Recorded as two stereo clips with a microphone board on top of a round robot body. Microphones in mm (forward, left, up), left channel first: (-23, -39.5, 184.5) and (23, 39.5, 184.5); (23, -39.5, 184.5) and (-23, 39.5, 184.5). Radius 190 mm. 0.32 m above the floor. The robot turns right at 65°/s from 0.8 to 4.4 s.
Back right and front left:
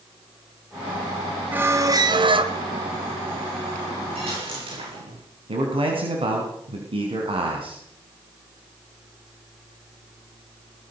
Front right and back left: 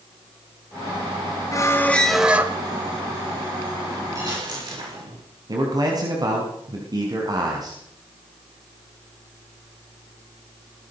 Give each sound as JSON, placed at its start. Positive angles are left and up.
{"t": 1.5, "sound": "a squeak", "azimuth_deg": -10, "distance_m": 2.0}
{"t": 4.2, "sound": "a dropped coin", "azimuth_deg": 65, "distance_m": 10.0}
{"t": 5.5, "sound": "a man speaking", "azimuth_deg": 75, "distance_m": 4.5}